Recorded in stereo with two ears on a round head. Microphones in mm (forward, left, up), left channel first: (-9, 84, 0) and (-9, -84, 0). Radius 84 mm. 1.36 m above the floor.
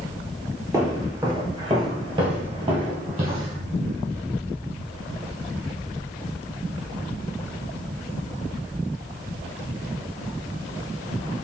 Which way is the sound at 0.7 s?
20° right (ahead or behind).